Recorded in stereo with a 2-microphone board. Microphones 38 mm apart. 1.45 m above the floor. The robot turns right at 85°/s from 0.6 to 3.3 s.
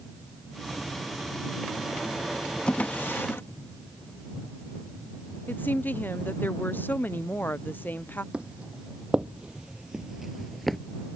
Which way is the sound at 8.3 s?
30° right (ahead or behind).